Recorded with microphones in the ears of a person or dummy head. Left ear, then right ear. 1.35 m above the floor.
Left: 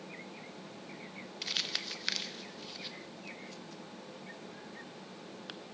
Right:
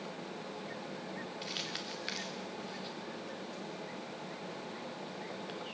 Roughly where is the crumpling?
Left.